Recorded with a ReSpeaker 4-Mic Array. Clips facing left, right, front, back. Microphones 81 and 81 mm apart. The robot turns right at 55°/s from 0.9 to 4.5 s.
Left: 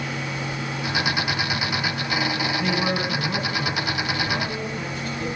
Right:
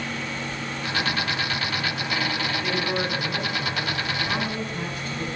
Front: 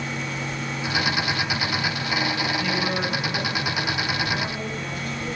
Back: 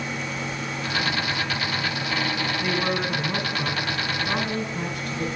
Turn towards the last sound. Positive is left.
turn(degrees=-165)